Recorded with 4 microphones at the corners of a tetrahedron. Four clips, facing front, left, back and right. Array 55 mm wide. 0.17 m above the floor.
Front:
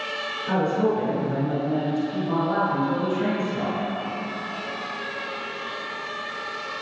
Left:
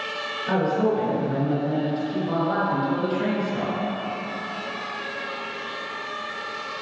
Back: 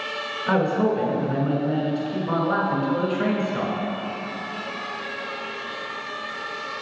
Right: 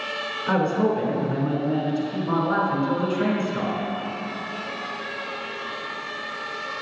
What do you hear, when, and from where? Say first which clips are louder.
0.5 s a man speaking: even, back 2 dB; 155° right, 1.7 m